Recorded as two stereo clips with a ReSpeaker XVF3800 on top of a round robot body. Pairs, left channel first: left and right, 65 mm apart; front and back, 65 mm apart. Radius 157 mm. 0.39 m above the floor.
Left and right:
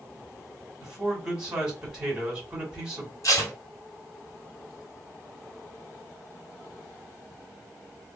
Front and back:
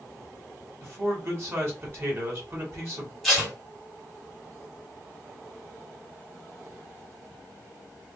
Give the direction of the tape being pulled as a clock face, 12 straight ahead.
9 o'clock.